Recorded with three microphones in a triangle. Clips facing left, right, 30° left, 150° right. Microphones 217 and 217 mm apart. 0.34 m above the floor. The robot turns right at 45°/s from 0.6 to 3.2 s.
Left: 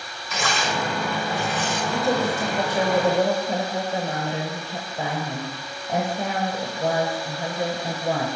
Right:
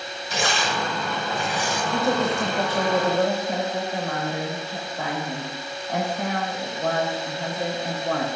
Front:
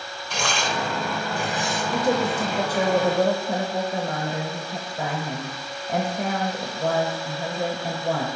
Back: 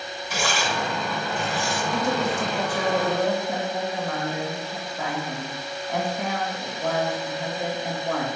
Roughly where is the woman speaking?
Ahead.